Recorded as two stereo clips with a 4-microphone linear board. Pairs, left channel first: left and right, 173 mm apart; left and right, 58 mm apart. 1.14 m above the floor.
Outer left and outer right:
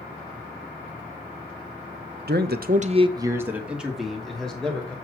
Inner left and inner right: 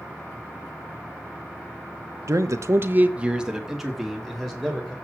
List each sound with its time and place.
2.3 s a man speaking: 65° right (ahead or behind), 0.8 m; by 5.0 s 5° left (ahead or behind), 3 m